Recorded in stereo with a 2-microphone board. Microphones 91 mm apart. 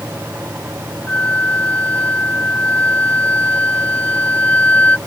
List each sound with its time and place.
1.1 s a flute: 15° left (ahead or behind)